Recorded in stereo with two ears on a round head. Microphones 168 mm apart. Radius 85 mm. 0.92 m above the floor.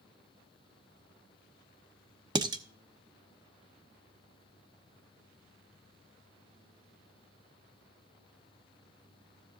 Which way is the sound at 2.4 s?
25° right (ahead or behind).